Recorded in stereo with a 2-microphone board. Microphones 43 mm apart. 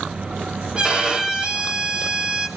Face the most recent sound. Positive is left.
turn(degrees=-25)  # may be behind; listen again after turning